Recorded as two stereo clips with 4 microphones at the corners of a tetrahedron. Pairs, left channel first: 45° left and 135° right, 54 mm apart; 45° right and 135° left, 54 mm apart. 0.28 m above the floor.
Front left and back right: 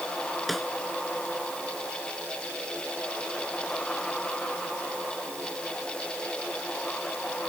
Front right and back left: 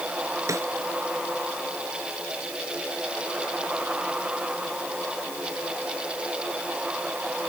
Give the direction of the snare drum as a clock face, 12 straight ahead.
8 o'clock.